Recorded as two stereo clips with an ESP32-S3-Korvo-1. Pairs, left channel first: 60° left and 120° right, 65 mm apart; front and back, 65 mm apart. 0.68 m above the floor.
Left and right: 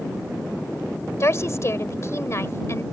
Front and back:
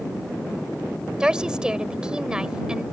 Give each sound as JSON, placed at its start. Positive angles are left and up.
{"t": 1.2, "sound": "a woman speaking", "azimuth_deg": 105}